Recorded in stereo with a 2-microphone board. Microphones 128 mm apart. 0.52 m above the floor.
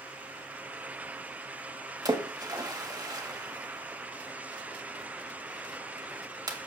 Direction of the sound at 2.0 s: 35° right (ahead or behind).